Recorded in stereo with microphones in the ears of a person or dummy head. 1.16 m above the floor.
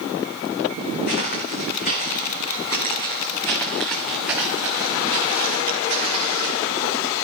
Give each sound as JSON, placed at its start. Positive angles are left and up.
{"t": 1.1, "sound": "footsteps", "side_deg": 55, "distance_m": 3.5}